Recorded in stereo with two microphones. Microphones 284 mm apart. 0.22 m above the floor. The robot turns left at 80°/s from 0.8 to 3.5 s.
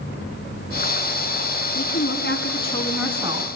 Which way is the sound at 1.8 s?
100° left.